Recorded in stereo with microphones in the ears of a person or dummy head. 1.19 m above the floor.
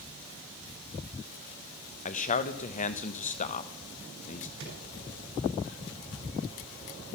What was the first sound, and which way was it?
A man speaking, 40° left (ahead or behind).